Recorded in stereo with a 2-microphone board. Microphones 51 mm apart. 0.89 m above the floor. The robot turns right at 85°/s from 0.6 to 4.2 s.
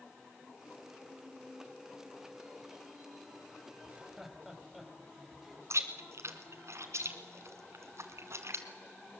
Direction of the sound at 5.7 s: 65° right (ahead or behind).